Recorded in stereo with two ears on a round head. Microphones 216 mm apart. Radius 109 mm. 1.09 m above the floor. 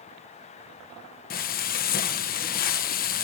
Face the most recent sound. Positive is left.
turn(degrees=40)  # may be behind; listen again after turning